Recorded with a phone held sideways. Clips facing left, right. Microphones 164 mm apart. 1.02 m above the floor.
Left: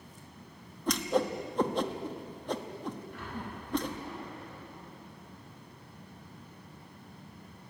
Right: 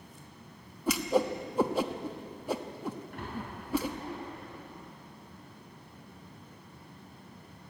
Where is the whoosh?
5° right (ahead or behind), 1.0 m.